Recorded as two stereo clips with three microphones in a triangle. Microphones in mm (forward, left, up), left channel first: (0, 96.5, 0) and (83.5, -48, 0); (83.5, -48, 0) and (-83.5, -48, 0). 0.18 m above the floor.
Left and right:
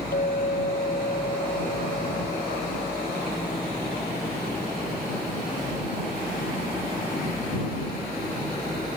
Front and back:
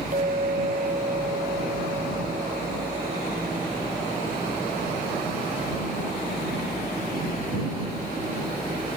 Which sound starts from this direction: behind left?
A clink, at 0.1 s.